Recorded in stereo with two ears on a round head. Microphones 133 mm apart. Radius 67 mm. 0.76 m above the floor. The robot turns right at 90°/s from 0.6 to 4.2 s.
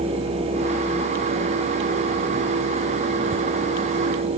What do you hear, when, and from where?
Only background noise.